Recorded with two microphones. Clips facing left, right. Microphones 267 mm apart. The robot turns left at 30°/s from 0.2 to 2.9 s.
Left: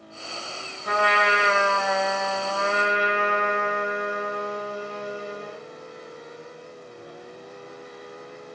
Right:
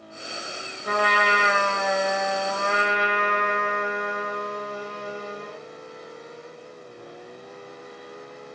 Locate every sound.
0.8 s a trumpet: 20° right (ahead or behind), 1.7 m; by 5.6 s 5° left (ahead or behind), 1.7 m